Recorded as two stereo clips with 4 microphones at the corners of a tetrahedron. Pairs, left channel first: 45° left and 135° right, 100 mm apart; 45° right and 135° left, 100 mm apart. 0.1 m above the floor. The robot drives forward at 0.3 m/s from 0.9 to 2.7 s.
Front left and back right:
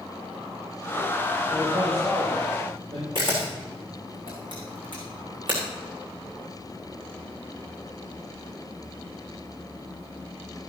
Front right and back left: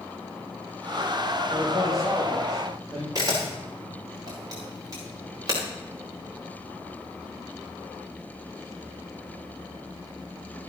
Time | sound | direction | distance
1.5 | a man speaking | 140° right | 4.5 m
3.1 | a camera shutter | 175° right | 6.5 m